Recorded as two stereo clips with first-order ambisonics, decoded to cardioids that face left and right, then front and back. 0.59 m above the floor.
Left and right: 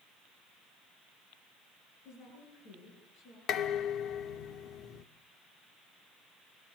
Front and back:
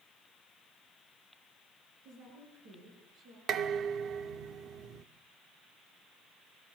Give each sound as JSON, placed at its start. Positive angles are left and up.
{"t": 2.0, "sound": "a woman speaking", "azimuth_deg": 135, "distance_m": 9.0}
{"t": 3.5, "sound": "dishes clattering", "azimuth_deg": 135, "distance_m": 0.9}